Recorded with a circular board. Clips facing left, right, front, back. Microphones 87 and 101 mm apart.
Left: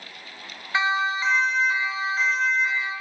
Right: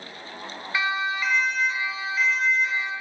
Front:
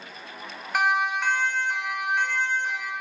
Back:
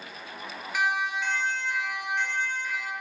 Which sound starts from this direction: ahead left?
A siren, at 0.7 s.